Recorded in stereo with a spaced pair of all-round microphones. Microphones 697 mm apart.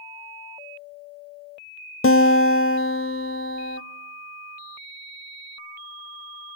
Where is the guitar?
20° left (ahead or behind), 0.5 m.